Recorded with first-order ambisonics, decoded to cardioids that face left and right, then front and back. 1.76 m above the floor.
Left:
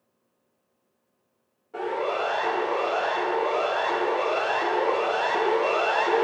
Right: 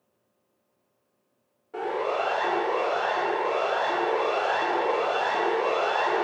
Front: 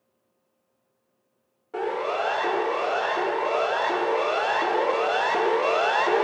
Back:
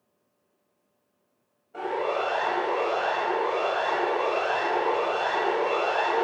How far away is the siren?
About 5 m.